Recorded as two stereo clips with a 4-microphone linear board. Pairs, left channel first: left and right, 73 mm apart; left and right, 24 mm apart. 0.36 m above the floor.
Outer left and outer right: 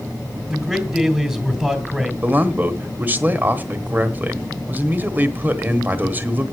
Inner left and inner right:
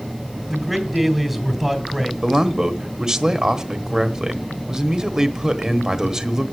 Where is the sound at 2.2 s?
25° right (ahead or behind), 1.1 m.